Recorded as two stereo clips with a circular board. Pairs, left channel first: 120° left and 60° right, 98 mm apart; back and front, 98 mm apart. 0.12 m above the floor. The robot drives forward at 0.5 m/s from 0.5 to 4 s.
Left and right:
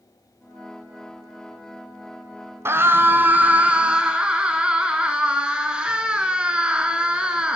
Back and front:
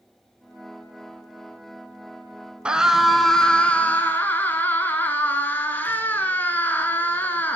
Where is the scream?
65° right, 1.3 m; by 7.6 s 130° right, 1.4 m.